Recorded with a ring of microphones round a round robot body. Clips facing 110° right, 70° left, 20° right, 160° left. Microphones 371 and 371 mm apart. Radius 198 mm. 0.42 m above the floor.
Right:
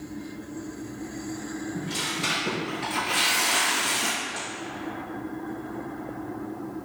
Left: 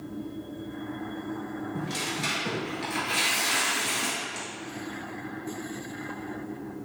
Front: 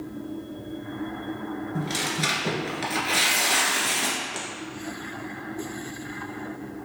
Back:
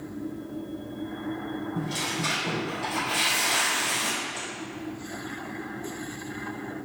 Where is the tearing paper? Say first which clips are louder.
Right 1 dB, front 1 dB; 15° right, 1.4 m.